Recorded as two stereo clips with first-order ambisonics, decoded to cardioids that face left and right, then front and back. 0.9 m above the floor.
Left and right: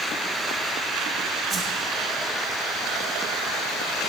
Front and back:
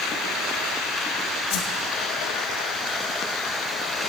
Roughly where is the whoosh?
Ahead right.